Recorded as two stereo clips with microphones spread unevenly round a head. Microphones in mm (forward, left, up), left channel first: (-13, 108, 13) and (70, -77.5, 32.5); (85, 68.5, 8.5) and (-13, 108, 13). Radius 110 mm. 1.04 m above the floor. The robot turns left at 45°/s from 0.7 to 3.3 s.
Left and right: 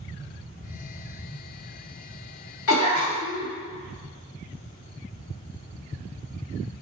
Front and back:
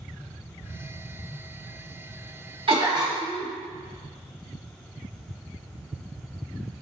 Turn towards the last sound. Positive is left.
turn(degrees=90)